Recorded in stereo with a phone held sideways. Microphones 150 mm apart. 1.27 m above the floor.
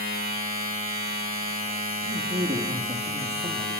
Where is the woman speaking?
55° right (ahead or behind), 2.5 m.